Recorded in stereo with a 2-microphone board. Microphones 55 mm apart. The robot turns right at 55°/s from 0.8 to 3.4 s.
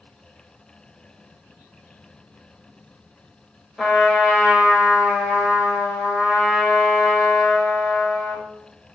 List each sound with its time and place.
3.8 s a trumpet: centre (ahead or behind), 0.8 m